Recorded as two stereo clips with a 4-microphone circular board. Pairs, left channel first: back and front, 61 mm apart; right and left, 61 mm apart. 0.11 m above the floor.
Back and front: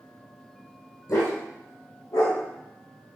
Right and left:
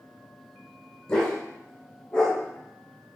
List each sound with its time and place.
1.1 s a dog barking: 165° right, 2.5 m